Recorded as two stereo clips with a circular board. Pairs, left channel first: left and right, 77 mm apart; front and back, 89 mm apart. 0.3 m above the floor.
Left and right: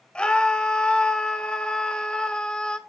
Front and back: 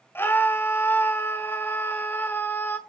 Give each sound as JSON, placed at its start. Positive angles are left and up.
{"t": 0.1, "sound": "a scream", "azimuth_deg": 25, "distance_m": 1.5}